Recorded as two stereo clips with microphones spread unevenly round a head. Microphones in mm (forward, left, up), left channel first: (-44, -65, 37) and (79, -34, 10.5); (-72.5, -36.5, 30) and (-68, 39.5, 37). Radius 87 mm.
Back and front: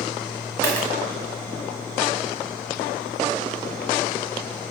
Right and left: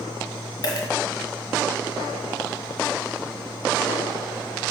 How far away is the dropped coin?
About 1.7 m.